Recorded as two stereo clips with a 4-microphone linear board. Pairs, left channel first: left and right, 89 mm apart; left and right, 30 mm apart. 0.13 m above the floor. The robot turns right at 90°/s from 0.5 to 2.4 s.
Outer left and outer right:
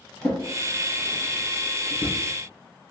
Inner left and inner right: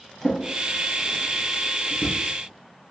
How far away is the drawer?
About 1.8 m.